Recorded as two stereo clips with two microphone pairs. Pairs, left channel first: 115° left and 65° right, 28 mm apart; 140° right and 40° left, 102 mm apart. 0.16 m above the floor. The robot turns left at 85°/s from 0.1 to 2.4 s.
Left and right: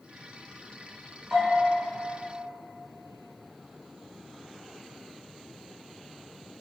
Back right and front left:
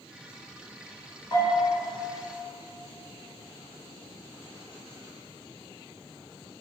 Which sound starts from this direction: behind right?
A bell, at 1.3 s.